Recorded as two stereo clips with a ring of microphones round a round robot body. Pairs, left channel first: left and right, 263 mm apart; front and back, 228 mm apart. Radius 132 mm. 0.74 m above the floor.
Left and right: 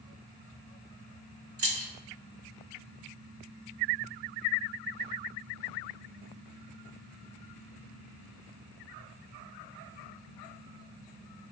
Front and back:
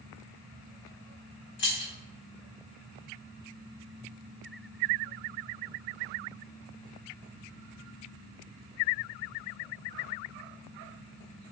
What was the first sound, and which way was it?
Keys jangling, 50° right.